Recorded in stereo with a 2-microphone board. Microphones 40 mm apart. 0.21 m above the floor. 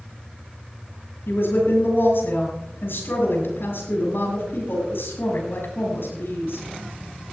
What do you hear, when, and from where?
1.3 s a woman speaking: 75° left (ahead or behind), 6.5 m